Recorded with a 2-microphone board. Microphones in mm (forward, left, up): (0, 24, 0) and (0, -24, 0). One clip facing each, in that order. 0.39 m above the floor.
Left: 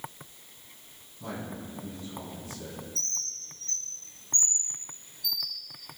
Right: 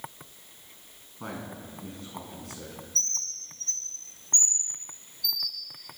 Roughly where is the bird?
Right.